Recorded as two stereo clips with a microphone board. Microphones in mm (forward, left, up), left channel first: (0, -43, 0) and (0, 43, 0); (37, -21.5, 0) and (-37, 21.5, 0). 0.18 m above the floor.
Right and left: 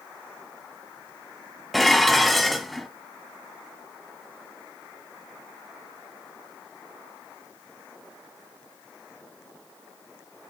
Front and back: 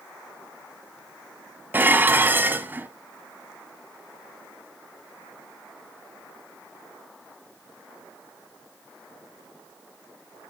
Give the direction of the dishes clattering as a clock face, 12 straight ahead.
6 o'clock.